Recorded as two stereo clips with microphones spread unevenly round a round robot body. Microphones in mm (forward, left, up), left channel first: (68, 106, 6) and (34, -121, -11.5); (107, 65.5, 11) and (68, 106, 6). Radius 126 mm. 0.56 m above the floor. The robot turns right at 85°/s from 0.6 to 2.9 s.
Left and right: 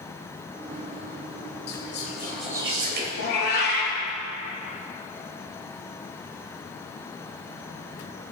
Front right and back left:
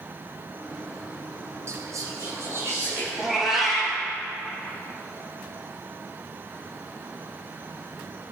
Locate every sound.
1.7 s whispering: 110° left, 3 m; by 3.1 s 150° right, 3 m
3.2 s a cat meowing: 40° left, 4.5 m